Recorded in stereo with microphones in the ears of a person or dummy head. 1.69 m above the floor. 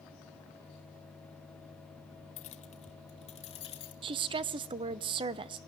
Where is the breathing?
I don't hear breathing.